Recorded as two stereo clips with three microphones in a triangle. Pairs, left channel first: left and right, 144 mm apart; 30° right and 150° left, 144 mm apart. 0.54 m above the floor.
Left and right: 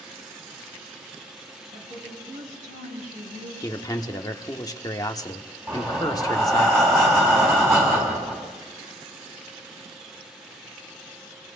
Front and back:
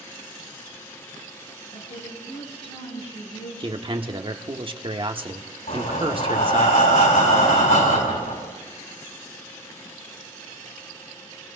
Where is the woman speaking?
65° right, 4 m; by 3.5 s 75° right, 6 m.